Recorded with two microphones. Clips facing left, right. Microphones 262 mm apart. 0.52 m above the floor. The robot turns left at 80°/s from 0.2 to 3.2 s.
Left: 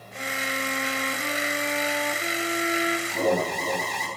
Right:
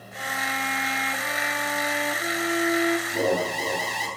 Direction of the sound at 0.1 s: 150° left.